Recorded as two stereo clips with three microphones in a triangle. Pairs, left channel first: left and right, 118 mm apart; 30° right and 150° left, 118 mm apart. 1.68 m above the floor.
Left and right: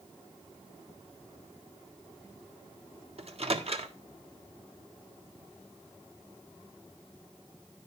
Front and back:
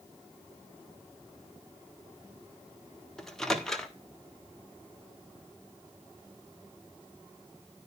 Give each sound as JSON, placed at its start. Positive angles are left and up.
{"t": 3.2, "sound": "a microwave", "azimuth_deg": -115, "distance_m": 1.5}